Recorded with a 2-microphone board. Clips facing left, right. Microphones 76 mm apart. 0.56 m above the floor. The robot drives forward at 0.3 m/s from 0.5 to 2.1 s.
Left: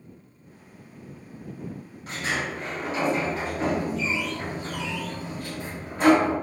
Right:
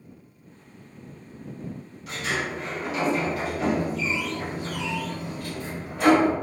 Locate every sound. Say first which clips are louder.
2.1 s a sliding door: even; 40° left (ahead or behind), 1.5 m